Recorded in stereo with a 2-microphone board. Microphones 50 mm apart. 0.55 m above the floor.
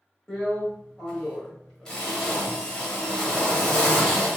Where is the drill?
15° left (ahead or behind), 1.3 m.